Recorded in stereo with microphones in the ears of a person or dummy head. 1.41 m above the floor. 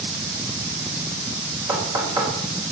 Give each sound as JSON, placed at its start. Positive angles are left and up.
{"t": 1.7, "sound": "knocking", "side_deg": -15, "distance_m": 4.0}